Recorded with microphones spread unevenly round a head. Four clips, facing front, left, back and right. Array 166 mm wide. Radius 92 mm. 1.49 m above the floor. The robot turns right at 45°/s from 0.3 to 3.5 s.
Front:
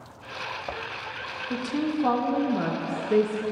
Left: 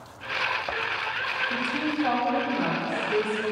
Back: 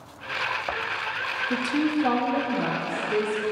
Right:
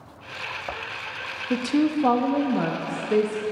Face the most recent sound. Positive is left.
turn(degrees=-30)